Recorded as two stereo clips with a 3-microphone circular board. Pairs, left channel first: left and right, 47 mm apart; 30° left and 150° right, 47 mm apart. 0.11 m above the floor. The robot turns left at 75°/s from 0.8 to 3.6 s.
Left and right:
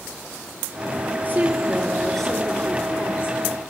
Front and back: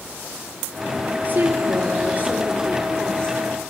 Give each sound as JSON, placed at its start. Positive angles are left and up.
{"t": 1.2, "sound": "a woman speaking", "azimuth_deg": -120, "distance_m": 3.0}